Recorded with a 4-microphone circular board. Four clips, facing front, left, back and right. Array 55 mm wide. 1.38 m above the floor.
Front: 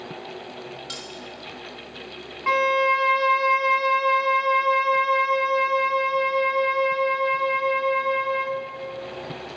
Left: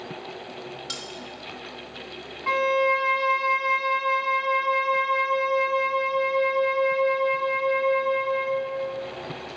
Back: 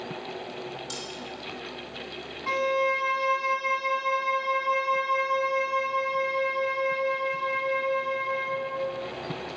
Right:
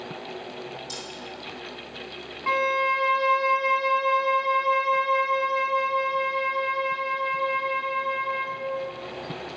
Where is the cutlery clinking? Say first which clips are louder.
Left 2 dB, front 1 dB; 50° left, 1.3 m.